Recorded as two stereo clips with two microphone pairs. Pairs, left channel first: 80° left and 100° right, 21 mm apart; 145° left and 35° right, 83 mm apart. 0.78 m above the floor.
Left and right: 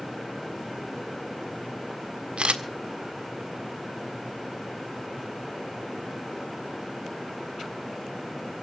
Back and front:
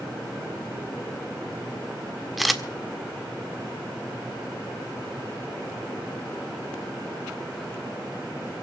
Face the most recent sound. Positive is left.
turn(degrees=-125)